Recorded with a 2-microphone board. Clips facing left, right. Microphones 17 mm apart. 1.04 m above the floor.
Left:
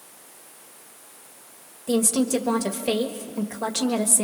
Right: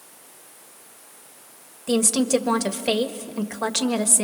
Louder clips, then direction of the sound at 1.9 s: Right 2 dB; 35° right (ahead or behind).